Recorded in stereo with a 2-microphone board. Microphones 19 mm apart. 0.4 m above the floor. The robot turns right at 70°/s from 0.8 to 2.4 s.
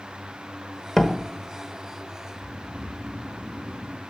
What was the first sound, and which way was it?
A door slam, 30° left (ahead or behind).